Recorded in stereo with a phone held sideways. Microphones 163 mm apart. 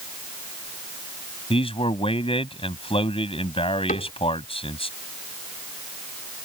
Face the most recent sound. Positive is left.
turn(degrees=55)  # may be behind; listen again after turning